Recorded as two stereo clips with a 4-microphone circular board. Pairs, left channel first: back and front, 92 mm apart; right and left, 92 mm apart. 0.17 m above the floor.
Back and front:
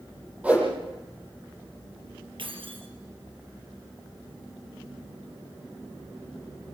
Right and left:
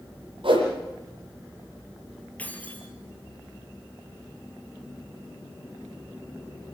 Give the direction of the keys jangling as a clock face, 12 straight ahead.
1 o'clock.